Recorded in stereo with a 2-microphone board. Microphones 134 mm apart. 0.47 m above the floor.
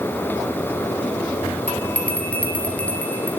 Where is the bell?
10° left (ahead or behind), 3 m.